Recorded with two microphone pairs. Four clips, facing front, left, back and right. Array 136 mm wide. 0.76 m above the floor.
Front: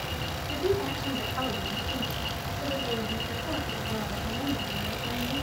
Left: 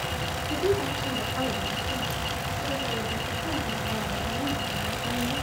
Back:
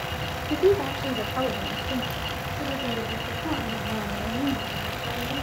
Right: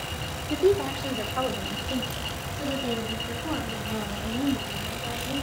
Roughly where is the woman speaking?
Behind right.